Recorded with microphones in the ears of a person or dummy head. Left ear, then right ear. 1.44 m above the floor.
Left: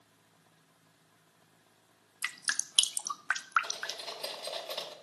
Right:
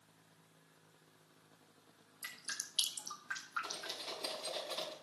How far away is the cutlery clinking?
About 5 m.